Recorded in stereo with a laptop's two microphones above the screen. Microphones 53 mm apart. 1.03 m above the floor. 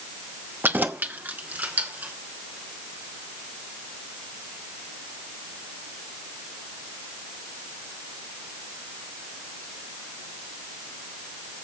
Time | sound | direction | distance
0.6 | keys jangling | 40° right (ahead or behind) | 0.6 m